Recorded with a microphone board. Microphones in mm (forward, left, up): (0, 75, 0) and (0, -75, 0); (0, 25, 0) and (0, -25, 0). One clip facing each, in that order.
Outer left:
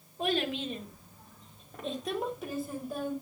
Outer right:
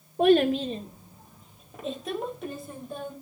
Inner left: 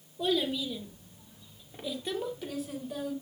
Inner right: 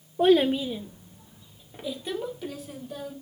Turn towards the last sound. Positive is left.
turn(degrees=5)  # may be behind; listen again after turning